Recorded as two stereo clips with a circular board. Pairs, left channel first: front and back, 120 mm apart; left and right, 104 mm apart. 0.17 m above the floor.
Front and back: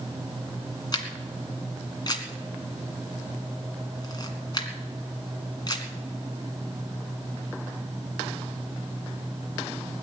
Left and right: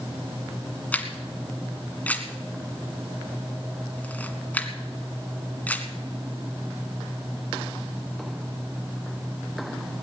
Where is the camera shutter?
25° left, 1.9 m.